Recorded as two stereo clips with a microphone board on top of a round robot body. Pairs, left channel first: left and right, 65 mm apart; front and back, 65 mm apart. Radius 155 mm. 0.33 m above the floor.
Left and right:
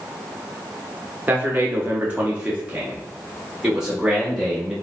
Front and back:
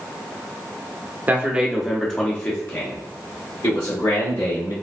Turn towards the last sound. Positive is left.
turn(degrees=-5)